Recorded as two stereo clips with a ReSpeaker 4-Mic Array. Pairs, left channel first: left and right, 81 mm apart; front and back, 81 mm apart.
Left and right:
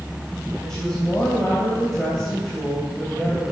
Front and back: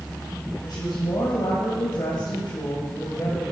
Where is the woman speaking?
10° left, 3 m.